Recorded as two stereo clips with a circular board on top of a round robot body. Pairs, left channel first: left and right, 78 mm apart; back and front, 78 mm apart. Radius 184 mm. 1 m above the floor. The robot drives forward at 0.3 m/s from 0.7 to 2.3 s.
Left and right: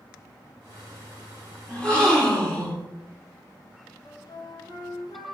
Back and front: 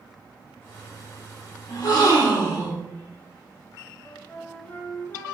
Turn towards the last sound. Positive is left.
turn(degrees=115)